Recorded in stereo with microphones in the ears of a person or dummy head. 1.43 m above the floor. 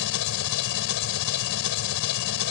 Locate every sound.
0.0 s an engine running: 70° left (ahead or behind)